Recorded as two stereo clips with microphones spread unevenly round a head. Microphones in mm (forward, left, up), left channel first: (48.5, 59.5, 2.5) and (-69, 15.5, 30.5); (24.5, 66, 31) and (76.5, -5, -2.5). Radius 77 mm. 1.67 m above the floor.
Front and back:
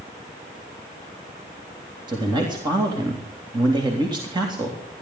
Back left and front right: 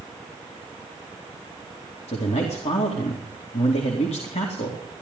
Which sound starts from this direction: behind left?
A man speaking, at 2.1 s.